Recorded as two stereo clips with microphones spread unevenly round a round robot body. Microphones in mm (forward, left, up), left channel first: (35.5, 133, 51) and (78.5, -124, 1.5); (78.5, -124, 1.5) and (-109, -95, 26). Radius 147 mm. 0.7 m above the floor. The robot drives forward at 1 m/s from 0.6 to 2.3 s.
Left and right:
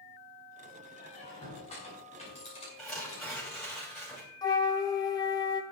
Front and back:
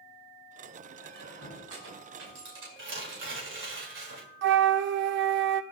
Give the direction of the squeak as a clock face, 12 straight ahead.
6 o'clock.